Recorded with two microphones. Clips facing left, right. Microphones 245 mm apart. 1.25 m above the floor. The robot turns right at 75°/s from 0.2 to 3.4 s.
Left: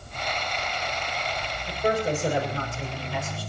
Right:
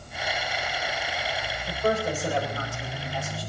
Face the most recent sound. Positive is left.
turn(degrees=125)